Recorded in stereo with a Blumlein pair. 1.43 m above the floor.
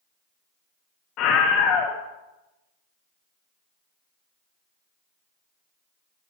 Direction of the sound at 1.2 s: 40° left.